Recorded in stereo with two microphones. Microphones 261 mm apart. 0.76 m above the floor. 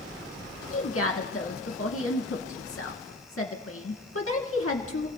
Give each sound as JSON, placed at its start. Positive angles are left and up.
{"t": 0.7, "sound": "a woman speaking", "side_deg": 60, "distance_m": 1.4}